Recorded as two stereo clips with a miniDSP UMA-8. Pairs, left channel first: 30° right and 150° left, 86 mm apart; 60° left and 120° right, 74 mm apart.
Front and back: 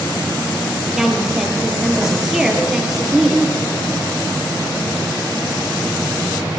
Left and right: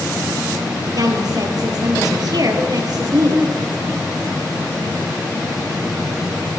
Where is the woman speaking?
125° right, 2.5 m.